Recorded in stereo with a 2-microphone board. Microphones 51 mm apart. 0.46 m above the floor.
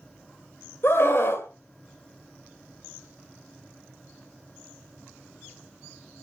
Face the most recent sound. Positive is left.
turn(degrees=55)  # may be behind; listen again after turning